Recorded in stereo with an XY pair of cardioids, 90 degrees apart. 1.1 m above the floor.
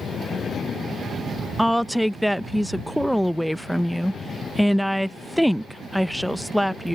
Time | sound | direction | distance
1.6 | a woman speaking | straight ahead | ?